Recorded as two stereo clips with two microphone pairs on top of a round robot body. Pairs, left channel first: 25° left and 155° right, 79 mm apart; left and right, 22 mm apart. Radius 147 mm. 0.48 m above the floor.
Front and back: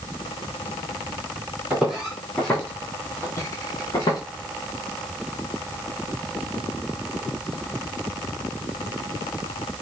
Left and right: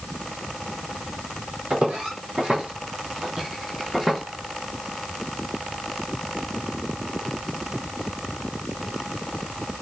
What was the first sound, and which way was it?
Footsteps, 75° right.